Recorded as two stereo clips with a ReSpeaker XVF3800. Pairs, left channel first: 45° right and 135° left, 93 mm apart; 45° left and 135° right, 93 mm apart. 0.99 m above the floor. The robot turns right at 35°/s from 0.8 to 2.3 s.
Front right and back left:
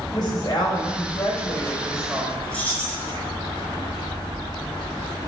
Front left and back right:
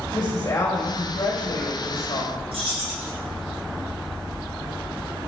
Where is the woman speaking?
5° left, 3.5 m; by 2.4 s 55° left, 3.5 m.